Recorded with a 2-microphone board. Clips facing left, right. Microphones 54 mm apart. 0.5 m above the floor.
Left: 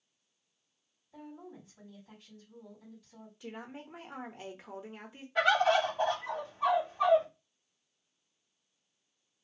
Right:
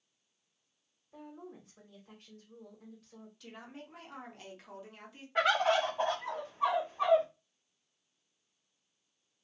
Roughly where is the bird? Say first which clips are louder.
Left 2 dB; right.